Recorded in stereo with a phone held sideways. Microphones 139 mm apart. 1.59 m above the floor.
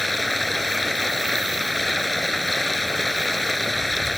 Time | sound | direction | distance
0.0 | running water | centre (ahead or behind) | ?